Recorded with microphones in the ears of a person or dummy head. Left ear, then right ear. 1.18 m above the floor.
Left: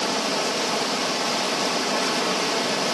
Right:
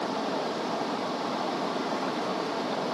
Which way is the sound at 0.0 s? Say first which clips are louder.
Left 6 dB; 80° left.